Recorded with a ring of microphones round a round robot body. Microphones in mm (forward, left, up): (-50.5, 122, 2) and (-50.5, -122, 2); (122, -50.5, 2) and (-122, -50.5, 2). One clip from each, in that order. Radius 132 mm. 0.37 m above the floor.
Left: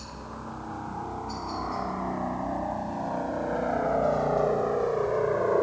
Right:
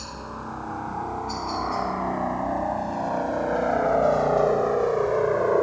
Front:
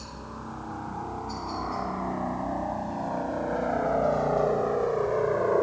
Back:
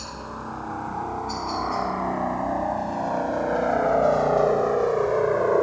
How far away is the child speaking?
I don't hear a child speaking.